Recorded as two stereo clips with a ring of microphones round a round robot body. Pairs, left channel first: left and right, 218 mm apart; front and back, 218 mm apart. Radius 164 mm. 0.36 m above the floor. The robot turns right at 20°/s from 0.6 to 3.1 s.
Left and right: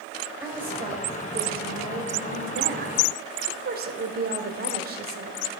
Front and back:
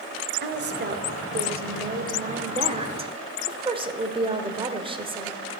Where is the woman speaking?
170° right, 1.5 m; by 5.4 s 120° right, 1.5 m.